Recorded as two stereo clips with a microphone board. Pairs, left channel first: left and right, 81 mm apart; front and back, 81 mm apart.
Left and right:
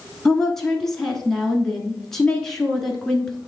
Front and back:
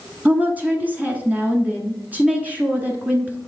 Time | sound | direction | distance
0.2 | a woman speaking | 165° left | 1.1 m